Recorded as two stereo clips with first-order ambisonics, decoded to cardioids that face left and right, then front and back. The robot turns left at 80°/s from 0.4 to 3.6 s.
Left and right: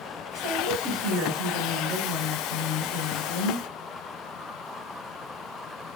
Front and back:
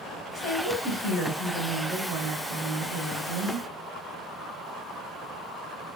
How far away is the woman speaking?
About 2.5 m.